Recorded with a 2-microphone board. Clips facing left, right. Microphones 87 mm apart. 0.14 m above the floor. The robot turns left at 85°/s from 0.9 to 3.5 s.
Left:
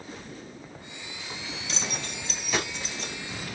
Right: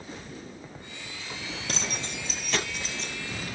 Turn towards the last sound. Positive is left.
turn(degrees=90)